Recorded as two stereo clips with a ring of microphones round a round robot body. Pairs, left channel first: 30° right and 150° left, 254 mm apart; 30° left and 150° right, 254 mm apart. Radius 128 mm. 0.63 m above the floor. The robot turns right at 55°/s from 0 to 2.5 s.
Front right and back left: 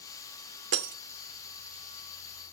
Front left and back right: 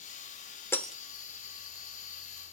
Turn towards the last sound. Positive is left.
turn(degrees=-150)